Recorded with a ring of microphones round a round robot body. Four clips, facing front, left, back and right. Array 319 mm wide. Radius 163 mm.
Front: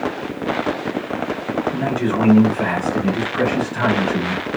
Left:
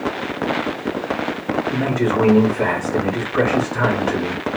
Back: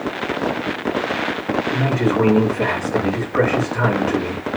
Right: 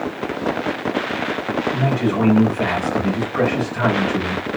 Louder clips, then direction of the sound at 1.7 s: Left 2 dB, back 4 dB; 145° left.